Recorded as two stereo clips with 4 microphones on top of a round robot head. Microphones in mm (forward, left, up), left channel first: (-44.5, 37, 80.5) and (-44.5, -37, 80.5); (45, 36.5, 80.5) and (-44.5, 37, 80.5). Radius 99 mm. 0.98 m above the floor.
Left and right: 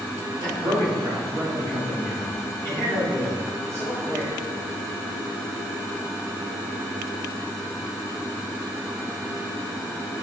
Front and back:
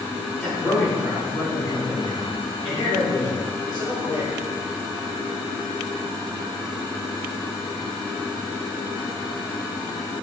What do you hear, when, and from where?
0.4 s a man speaking: 75° right, 2.5 m; by 4.4 s 35° right, 5 m